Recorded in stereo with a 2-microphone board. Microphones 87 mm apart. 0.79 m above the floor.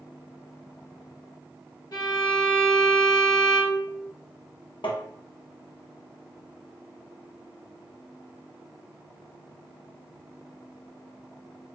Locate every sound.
1.9 s a violin: 55° left (ahead or behind), 1.0 m
4.8 s tapping: 75° left (ahead or behind), 0.6 m